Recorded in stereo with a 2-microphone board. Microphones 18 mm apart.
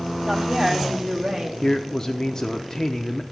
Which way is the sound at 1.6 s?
35° left (ahead or behind).